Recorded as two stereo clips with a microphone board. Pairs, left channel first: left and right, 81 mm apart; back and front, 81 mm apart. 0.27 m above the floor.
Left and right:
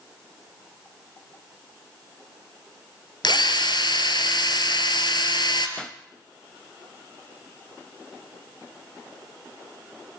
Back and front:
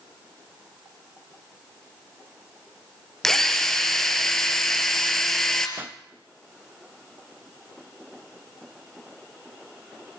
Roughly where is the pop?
Ahead.